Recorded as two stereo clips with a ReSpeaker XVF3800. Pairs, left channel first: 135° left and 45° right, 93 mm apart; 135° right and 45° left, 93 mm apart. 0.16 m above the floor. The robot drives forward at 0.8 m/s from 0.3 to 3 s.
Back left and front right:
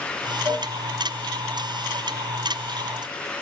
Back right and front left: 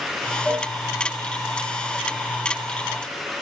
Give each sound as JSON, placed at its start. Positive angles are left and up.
{"t": 0.5, "sound": "a cowbell", "azimuth_deg": 15, "distance_m": 1.8}